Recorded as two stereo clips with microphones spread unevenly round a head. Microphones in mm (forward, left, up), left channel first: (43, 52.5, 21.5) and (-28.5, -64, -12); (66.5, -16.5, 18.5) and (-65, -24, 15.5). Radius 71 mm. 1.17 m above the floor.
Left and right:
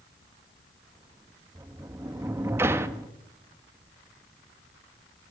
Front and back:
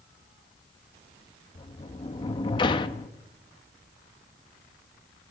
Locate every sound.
1.6 s a sliding door: 40° right, 0.6 m